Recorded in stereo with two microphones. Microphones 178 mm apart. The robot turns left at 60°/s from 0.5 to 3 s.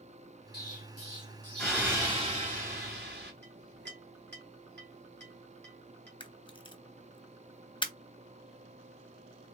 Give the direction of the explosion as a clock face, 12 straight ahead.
10 o'clock.